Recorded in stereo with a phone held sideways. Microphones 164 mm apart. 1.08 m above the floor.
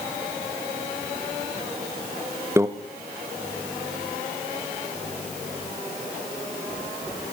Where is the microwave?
15° right (ahead or behind), 0.5 m.